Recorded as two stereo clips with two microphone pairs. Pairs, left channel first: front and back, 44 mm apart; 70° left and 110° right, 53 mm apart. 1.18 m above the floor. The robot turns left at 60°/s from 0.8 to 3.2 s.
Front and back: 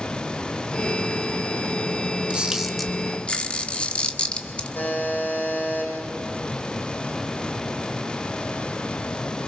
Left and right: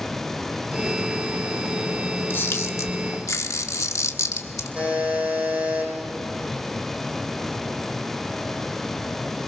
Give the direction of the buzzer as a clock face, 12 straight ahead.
2 o'clock.